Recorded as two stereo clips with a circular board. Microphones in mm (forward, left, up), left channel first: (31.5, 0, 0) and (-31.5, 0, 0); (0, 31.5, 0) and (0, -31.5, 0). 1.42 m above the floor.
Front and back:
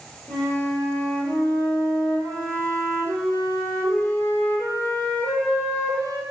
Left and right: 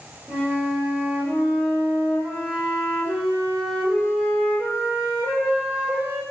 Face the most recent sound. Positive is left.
turn(degrees=-35)